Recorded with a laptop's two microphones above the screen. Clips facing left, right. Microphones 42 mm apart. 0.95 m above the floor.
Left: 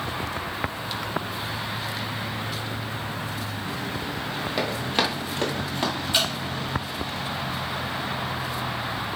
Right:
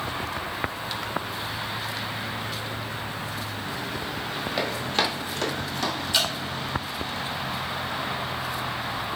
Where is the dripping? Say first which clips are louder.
Even; 25° left (ahead or behind), 1.4 m.